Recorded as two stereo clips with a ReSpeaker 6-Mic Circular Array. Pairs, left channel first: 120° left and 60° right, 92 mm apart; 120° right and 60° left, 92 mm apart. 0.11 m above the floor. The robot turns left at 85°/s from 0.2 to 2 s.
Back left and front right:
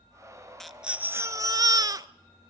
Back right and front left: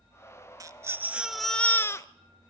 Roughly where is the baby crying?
Ahead left.